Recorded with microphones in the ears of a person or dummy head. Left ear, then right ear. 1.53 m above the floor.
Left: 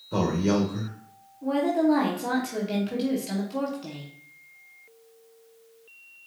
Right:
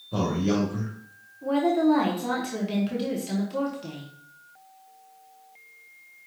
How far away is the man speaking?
About 1.2 m.